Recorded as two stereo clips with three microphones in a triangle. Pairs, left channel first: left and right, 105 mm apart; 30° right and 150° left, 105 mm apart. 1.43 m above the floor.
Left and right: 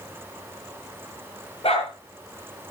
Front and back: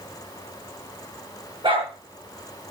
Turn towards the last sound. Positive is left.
turn(degrees=115)